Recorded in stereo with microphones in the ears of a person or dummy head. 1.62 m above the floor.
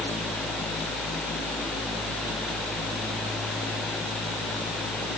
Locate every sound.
Only background noise.